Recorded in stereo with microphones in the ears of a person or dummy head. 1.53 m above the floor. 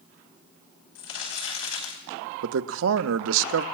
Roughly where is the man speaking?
Right.